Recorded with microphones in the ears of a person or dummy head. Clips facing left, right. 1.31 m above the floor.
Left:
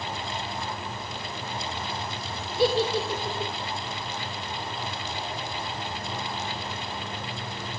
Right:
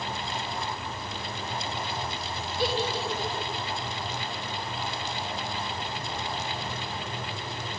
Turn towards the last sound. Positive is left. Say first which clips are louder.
# left 6 dB
turn(degrees=85)